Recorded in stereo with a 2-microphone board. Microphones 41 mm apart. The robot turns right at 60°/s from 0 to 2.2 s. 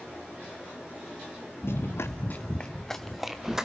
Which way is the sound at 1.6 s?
65° left (ahead or behind).